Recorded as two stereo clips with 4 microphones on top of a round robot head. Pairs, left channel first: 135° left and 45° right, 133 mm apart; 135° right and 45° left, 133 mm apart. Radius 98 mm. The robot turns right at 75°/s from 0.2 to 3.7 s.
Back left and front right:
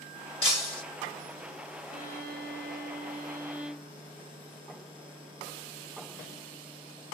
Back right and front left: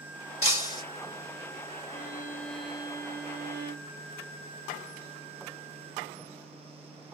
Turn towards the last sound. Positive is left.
turn(degrees=40)